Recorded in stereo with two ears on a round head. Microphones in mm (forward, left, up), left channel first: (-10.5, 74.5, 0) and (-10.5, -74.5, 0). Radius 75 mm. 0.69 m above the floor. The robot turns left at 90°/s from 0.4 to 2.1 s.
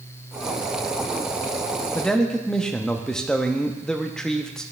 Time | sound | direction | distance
1.9 | a man speaking | 10° left (ahead or behind) | 0.5 m